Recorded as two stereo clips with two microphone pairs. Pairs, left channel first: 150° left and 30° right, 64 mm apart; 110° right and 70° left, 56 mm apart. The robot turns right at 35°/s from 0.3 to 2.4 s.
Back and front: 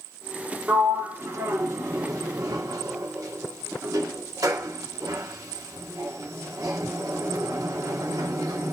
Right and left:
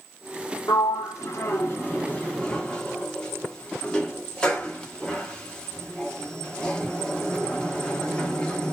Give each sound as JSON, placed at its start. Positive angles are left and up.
{"t": 0.7, "sound": "a sliding door", "azimuth_deg": -95, "distance_m": 0.8}